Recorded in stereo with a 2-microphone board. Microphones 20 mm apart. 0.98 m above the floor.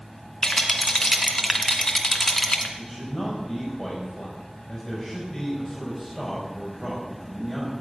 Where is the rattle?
25° left (ahead or behind), 2 m.